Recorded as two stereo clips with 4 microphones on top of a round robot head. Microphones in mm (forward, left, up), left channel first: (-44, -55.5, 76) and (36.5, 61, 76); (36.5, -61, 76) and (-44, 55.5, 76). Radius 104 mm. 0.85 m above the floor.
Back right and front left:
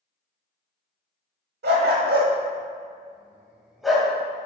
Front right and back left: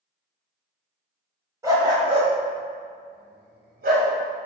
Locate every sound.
1.6 s a dog barking: 55° left, 1.7 m; by 4.1 s 150° left, 1.9 m